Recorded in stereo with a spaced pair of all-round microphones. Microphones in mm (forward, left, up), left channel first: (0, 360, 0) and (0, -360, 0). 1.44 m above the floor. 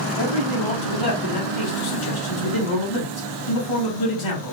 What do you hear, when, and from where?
0.2 s a man speaking: 45° left (ahead or behind), 3 m